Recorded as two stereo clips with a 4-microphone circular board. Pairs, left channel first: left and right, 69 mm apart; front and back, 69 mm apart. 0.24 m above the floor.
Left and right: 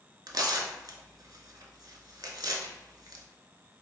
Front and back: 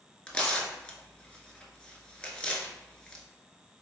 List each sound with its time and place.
0.3 s tearing paper: 75° right, 0.5 m